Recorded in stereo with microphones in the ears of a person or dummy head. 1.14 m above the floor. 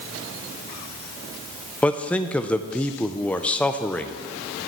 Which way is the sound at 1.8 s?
5° left (ahead or behind).